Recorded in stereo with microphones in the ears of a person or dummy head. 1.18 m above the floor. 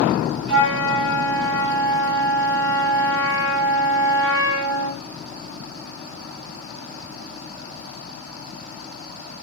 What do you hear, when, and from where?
0.5 s a flute: 25° right (ahead or behind), 1.7 m